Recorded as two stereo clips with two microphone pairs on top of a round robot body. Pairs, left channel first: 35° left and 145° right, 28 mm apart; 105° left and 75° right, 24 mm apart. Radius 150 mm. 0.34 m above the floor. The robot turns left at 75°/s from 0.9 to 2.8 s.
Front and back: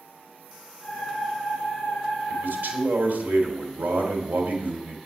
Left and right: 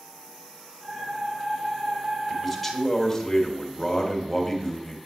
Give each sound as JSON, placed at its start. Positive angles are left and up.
{"t": 2.3, "sound": "a man speaking", "azimuth_deg": -135, "distance_m": 3.0}